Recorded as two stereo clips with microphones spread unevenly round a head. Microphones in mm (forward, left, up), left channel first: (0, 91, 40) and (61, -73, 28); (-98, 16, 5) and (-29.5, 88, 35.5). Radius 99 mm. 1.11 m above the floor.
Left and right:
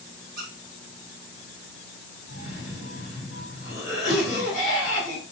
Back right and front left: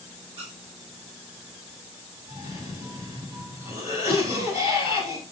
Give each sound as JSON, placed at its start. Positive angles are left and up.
{"t": 0.4, "sound": "a squeak", "azimuth_deg": -30, "distance_m": 3.5}
{"t": 2.3, "sound": "a cough", "azimuth_deg": -155, "distance_m": 4.5}